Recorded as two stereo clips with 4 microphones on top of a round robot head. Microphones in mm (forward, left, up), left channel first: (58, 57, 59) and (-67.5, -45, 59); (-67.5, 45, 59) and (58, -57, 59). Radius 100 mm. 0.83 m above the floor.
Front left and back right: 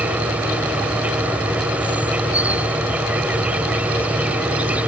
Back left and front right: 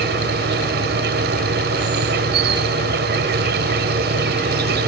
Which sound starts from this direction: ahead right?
An insect, at 0.0 s.